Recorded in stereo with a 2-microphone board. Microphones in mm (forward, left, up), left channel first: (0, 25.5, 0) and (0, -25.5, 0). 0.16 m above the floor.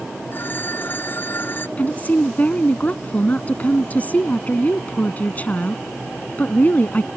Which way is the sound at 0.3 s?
40° left (ahead or behind).